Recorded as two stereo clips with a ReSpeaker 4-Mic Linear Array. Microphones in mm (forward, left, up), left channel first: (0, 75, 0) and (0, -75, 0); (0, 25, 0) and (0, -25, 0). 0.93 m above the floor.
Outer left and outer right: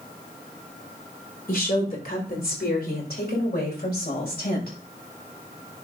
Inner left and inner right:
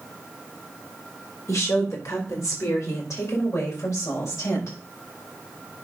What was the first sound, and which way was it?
A woman speaking, 70° left (ahead or behind).